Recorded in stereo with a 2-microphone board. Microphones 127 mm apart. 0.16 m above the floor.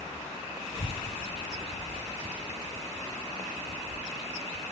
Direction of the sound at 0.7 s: 50° left (ahead or behind).